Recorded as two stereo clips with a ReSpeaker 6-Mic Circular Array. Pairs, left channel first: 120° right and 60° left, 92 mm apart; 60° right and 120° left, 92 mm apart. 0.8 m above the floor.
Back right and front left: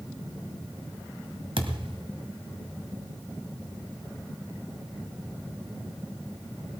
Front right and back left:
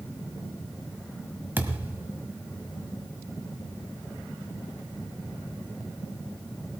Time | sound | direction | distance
1.6 | a thud | 50° left | 1.5 m